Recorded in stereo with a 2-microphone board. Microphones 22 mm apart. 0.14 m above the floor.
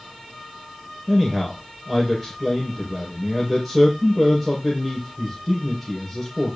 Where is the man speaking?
Centre (ahead or behind), 4.5 m.